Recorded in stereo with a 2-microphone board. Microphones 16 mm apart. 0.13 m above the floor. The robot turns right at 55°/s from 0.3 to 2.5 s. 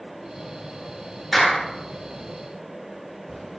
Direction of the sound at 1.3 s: 10° right (ahead or behind).